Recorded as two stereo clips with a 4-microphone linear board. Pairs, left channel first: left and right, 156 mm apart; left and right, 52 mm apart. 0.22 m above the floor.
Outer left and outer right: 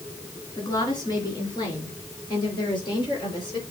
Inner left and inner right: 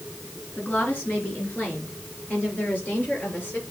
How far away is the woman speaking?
About 3.5 m.